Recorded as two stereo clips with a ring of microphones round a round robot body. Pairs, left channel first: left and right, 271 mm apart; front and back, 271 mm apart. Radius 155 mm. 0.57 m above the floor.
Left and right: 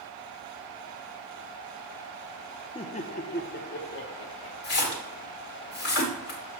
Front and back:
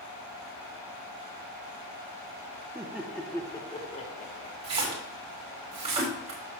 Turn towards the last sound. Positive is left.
turn(degrees=115)